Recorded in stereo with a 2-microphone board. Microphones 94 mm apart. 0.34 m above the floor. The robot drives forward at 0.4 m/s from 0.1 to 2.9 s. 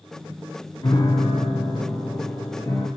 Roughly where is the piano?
Left.